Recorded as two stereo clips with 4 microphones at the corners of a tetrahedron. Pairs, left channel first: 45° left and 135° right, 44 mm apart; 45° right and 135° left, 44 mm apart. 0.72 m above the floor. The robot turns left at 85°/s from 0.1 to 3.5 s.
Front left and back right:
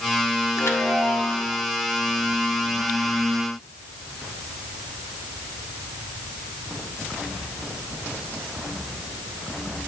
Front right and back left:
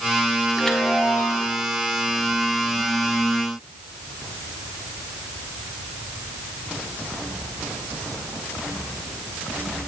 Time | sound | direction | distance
0.6 | a chime | 45° left | 1.6 m